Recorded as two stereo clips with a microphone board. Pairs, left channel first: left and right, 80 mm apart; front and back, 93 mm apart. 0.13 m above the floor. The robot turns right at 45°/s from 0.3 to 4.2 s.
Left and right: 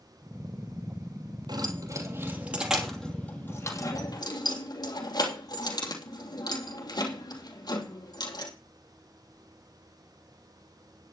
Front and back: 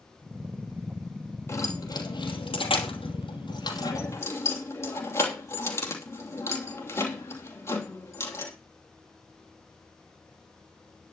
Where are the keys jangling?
65° right, 3 m; by 8.5 s 60° left, 3 m.